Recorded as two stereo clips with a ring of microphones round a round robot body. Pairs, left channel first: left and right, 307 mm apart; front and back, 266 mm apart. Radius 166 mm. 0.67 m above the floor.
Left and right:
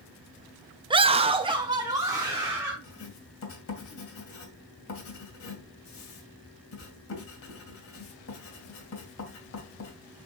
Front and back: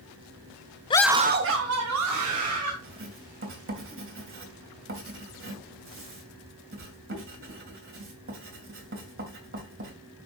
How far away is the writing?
About 2.5 m.